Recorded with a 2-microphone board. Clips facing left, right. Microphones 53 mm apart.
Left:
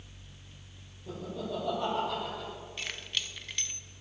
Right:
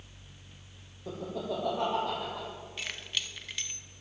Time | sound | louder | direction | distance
1.1 | laughter | right 2 dB | 70° right (ahead or behind) | 5.5 m
2.8 | keys jangling | even | centre (ahead or behind) | 0.8 m